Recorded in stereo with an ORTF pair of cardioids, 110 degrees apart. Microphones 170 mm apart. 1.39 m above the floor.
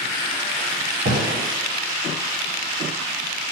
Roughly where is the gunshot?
Ahead right.